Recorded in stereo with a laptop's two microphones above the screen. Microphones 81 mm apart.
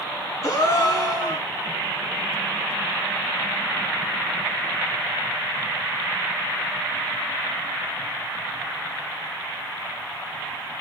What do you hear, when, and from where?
0.4 s a gasp: 45° left (ahead or behind), 1.2 m